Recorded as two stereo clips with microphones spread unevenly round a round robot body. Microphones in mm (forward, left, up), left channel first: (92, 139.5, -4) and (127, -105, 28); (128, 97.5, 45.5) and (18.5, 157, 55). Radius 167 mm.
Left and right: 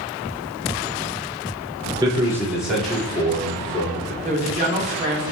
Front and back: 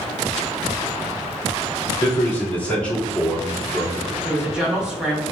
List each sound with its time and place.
2.0 s a man speaking: 10° right, 1.4 m; by 4.1 s 65° left, 1.7 m
4.2 s a woman speaking: 125° right, 0.7 m